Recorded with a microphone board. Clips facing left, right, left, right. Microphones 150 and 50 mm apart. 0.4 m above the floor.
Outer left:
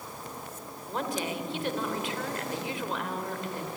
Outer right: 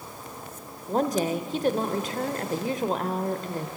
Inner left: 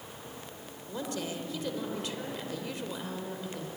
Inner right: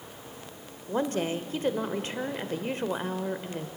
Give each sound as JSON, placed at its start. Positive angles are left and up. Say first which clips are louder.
{"t": 0.9, "sound": "a woman speaking", "louder": "outer right 8 dB, inner right 8 dB", "side_deg": -40, "distance_m": 1.4}